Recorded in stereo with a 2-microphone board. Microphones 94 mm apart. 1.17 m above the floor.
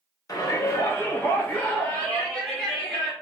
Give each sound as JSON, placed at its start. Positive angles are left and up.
{"t": 0.3, "sound": "a shout", "side_deg": 40, "distance_m": 1.1}